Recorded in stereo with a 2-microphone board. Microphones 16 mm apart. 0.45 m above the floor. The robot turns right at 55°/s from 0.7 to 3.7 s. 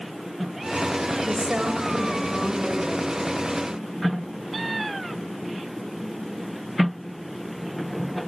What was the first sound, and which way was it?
A woman speaking, 95° right.